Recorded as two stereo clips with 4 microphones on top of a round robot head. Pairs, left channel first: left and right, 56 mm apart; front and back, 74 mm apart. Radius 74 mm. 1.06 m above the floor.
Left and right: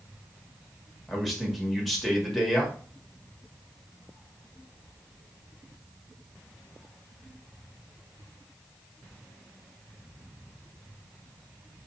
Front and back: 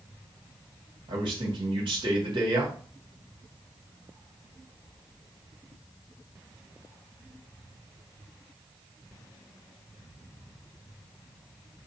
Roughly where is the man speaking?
Behind.